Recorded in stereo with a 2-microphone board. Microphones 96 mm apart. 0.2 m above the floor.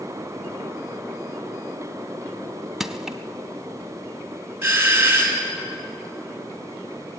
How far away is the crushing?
About 0.5 m.